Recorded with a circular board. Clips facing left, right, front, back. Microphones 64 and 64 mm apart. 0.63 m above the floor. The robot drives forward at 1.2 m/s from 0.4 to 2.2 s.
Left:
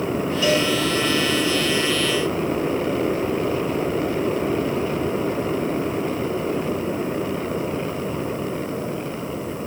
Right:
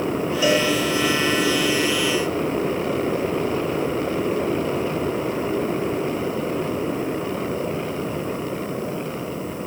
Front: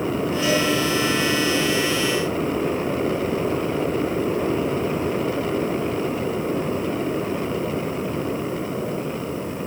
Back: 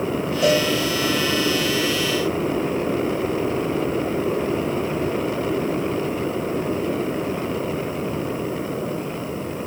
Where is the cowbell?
160° right, 3 m; by 0.7 s 165° right, 3.5 m.